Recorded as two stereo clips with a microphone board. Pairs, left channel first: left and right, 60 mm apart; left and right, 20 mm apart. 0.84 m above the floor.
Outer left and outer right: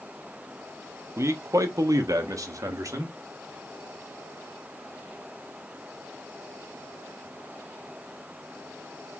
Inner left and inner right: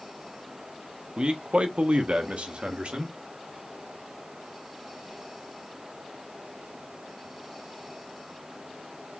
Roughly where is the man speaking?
Right.